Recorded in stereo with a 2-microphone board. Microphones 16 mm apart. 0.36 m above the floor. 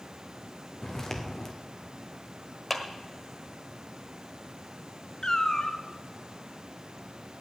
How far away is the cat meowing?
About 1.3 m.